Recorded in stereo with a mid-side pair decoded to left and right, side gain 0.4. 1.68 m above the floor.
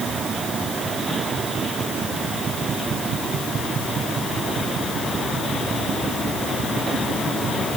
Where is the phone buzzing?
No phone buzzing in this recording.